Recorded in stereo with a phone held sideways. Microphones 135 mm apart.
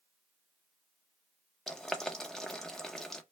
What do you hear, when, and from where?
1.7 s boiling: 5° left (ahead or behind), 0.7 m